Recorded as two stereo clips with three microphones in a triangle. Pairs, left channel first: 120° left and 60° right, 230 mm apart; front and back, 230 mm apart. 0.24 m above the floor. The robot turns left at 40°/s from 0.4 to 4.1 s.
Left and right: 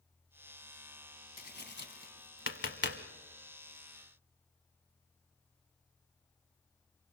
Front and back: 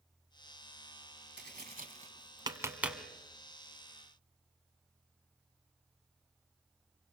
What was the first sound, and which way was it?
Tapping, 155° left.